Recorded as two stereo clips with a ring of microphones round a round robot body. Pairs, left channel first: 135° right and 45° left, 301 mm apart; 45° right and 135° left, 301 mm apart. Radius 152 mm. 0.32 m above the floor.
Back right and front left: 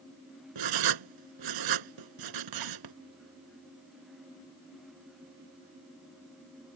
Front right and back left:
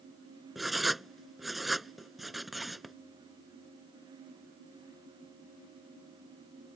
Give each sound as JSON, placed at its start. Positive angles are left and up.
{"t": 0.6, "sound": "writing", "azimuth_deg": 45}